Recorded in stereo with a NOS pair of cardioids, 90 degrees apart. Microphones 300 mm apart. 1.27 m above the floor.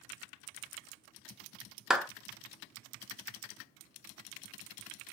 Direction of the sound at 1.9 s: Straight ahead.